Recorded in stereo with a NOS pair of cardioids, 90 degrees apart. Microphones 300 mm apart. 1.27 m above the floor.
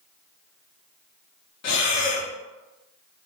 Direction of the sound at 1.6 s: 60° left.